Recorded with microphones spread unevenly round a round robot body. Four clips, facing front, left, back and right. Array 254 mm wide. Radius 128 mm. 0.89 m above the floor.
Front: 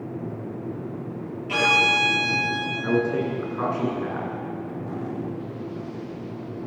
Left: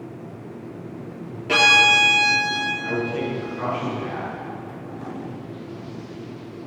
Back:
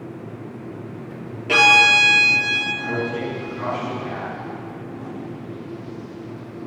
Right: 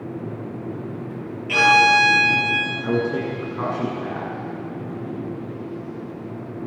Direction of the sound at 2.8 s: 65° right.